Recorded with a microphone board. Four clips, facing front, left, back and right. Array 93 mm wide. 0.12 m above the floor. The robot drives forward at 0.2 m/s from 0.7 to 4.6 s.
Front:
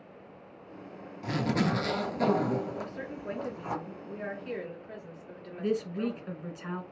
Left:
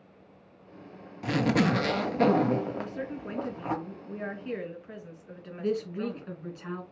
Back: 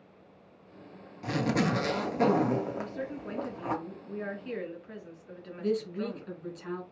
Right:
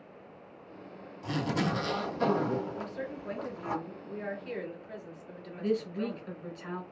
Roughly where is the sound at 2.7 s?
Ahead left.